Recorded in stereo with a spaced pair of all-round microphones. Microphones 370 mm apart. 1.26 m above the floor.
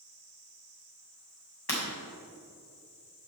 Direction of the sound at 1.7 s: 85° left.